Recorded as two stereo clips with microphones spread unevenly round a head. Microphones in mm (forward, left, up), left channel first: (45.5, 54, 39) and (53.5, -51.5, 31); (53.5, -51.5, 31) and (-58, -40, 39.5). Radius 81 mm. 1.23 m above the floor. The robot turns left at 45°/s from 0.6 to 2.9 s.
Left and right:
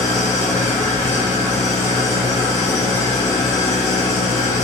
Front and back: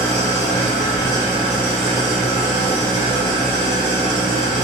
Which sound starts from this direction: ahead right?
An engine running, at 0.0 s.